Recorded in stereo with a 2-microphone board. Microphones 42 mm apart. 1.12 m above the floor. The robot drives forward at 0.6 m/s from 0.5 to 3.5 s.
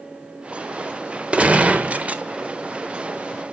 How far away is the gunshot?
About 1.0 m.